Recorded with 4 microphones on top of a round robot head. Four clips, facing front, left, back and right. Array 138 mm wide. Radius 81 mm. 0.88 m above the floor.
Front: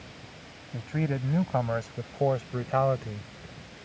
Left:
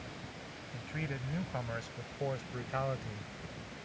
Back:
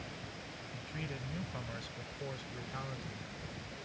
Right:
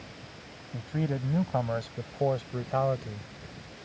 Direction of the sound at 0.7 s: 40° right.